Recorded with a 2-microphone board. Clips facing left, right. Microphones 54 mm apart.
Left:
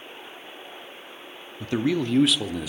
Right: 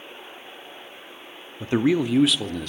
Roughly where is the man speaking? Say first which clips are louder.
Right 4 dB; right.